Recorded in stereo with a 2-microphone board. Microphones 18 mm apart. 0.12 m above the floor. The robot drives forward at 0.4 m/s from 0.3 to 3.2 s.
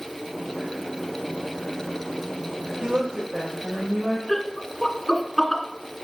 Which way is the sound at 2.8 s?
65° right (ahead or behind).